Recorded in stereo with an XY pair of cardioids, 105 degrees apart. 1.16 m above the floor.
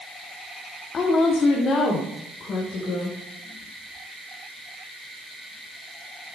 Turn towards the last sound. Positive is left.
turn(degrees=50)